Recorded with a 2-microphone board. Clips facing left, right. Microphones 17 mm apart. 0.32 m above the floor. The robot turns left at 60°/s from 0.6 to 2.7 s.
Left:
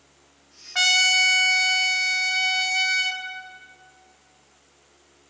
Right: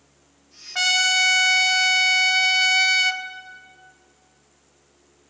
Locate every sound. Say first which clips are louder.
0.8 s a trumpet: left 1 dB; 10° left (ahead or behind), 0.6 m; by 3.2 s 30° right (ahead or behind), 0.6 m